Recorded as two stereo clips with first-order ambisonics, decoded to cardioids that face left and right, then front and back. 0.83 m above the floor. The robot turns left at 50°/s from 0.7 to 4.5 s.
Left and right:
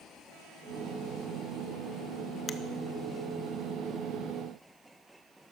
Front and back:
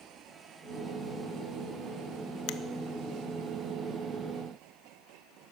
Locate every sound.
2.5 s a finger snap: 25° left, 0.5 m; by 2.6 s 20° left, 0.5 m